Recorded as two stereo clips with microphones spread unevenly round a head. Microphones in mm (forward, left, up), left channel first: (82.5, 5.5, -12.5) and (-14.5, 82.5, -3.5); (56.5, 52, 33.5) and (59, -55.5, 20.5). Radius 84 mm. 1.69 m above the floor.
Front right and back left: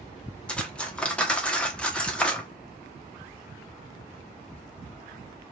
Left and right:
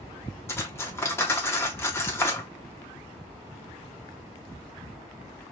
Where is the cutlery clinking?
45° left, 1.0 m.